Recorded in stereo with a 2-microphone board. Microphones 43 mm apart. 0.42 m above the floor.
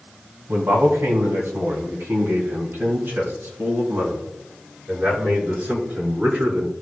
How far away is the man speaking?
About 2.5 m.